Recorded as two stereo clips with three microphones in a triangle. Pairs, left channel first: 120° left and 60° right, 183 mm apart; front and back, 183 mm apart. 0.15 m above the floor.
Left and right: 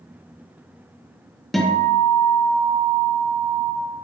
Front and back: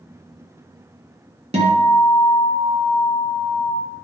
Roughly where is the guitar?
Behind right.